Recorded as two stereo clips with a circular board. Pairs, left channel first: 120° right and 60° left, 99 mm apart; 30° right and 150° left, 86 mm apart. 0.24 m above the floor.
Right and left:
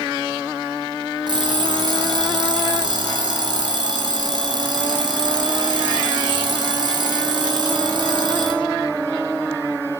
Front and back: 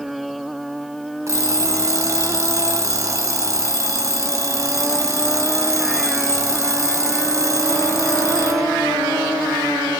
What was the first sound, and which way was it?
An alarm clock, 100° left.